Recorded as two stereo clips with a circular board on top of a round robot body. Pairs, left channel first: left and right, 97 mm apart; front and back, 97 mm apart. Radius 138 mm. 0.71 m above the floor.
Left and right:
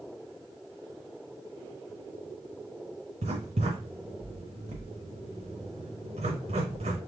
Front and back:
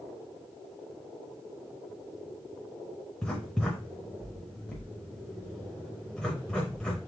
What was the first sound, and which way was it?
Writing, 85° right.